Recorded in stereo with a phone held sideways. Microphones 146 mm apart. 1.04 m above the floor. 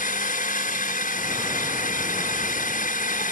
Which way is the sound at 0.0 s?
70° left (ahead or behind).